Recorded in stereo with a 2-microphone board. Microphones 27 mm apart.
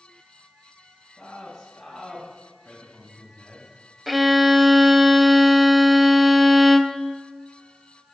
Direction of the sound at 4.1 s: Centre (ahead or behind).